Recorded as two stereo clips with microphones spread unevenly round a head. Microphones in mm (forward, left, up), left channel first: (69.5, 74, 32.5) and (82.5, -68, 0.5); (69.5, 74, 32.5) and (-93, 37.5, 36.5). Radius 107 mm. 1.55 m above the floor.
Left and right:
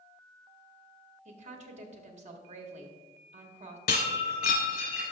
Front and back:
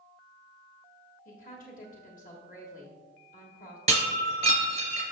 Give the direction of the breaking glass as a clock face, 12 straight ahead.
7 o'clock.